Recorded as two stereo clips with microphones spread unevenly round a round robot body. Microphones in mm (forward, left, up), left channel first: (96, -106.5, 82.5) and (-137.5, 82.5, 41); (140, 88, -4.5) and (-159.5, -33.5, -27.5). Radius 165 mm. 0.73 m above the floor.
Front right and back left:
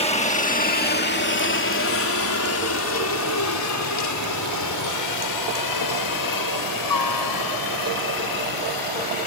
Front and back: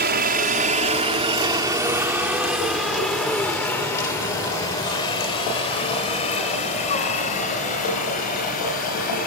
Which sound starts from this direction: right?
A helicopter, at 0.0 s.